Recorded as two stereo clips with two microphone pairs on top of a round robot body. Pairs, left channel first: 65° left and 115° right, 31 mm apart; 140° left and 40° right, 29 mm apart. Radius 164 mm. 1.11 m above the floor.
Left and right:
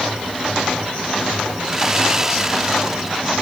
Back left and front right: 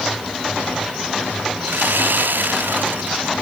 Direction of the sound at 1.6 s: 45° right.